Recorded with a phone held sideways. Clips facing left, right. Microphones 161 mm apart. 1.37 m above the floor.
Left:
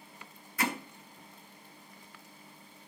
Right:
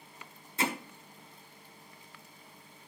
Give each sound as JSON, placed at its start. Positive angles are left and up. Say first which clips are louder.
{"t": 0.6, "sound": "hammering", "louder": "even", "side_deg": -25, "distance_m": 1.8}